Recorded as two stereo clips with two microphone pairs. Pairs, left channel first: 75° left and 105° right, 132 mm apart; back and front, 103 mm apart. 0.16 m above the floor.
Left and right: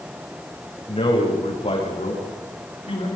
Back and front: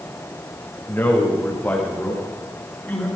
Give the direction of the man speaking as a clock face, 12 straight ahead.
8 o'clock.